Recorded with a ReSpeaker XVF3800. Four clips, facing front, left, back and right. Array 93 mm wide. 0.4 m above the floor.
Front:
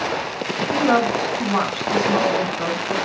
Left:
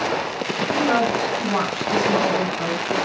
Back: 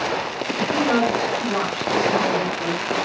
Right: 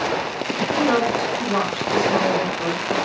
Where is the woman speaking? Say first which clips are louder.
Even, front 2 dB; 20° left, 4 m.